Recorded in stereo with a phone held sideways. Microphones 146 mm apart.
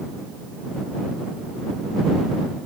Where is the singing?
I don't hear singing.